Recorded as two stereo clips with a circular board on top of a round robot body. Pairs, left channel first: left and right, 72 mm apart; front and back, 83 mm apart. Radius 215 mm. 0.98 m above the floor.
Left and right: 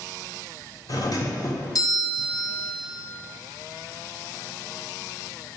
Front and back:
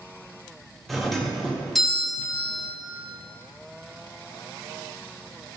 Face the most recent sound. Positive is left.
turn(degrees=90)